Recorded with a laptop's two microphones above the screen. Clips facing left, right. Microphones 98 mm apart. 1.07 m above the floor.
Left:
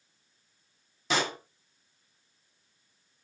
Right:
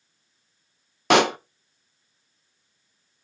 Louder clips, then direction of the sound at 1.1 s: Right 12 dB; 70° right (ahead or behind).